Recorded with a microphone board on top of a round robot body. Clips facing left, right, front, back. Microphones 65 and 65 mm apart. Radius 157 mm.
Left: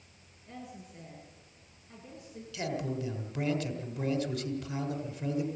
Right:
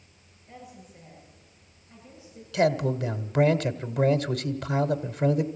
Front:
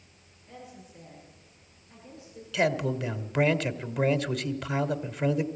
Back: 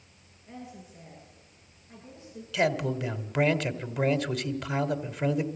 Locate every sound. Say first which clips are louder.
0.5 s a woman speaking: even, back 2 dB; 115° left, 8 m
2.5 s a man speaking: right 11 dB, even; 90° right, 1.7 m